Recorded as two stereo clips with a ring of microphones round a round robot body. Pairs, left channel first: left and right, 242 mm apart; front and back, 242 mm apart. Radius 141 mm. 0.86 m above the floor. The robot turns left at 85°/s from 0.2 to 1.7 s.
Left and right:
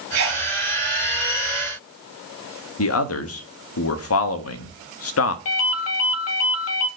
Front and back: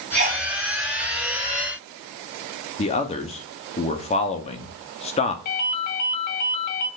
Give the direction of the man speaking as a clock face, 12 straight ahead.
10 o'clock.